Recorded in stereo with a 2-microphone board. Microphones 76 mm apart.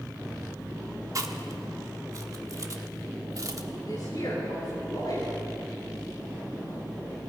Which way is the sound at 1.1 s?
45° right (ahead or behind).